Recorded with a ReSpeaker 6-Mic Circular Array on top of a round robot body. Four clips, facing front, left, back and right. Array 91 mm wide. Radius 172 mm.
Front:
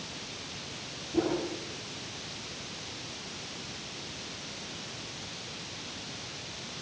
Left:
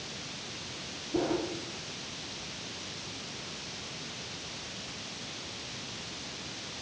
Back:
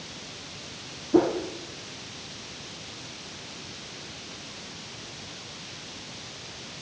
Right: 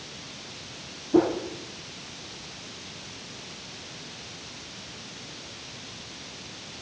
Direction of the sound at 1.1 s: 140° right.